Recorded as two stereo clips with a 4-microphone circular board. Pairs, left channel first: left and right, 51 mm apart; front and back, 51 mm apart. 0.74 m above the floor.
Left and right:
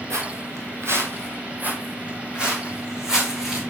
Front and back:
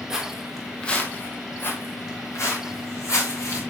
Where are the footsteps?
100° right, 2.0 m; by 3.6 s 10° right, 4.5 m.